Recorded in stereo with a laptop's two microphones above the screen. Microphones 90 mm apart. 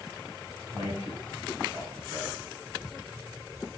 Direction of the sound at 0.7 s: 55° right (ahead or behind).